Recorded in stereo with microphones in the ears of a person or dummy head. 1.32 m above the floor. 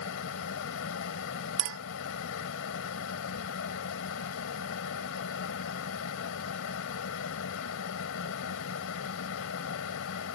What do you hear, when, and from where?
0.0 s a fan: 70° left (ahead or behind)
1.6 s a clink: 75° right (ahead or behind)